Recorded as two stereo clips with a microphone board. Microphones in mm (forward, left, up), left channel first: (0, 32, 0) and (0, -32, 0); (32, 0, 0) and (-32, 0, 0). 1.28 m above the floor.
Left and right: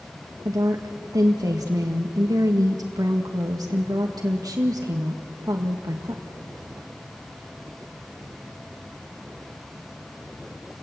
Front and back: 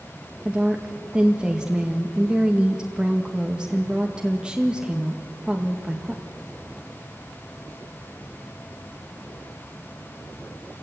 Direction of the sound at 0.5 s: 105° right.